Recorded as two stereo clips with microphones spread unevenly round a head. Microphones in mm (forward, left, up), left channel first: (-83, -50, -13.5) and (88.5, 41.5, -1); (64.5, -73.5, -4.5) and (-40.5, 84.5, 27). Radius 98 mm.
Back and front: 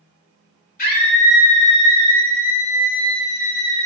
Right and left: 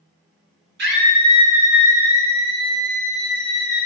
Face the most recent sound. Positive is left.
turn(degrees=-150)